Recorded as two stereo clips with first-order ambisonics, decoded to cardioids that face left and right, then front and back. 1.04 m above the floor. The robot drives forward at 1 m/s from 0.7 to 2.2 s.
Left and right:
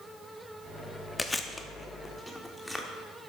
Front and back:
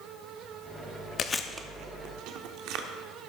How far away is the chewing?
About 0.5 m.